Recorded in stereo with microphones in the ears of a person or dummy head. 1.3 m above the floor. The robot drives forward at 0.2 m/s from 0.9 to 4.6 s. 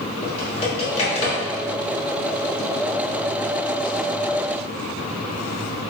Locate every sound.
0.2 s typing on a keyboard: 30° left (ahead or behind), 1.1 m; by 1.4 s 35° left (ahead or behind), 1.0 m